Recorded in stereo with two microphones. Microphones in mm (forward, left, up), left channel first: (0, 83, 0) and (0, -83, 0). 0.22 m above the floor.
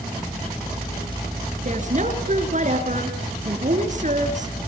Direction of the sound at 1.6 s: 50° right (ahead or behind).